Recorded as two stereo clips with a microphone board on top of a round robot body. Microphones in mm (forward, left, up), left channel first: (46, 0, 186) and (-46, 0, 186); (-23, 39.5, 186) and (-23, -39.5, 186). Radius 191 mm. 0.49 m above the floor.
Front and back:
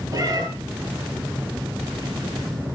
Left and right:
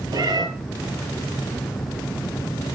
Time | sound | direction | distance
0.1 | a cat meowing | 130° right | 6 m